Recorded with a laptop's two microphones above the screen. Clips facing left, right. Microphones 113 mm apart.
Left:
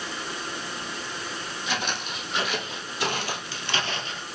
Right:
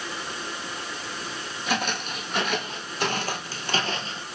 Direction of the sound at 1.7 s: 50° right (ahead or behind).